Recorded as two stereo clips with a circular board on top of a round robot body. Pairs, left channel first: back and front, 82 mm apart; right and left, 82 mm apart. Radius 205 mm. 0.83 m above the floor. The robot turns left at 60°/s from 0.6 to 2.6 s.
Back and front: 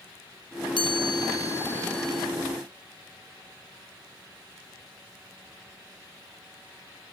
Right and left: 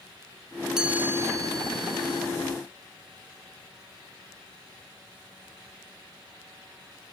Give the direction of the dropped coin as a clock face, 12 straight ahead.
I don't hear a dropped coin.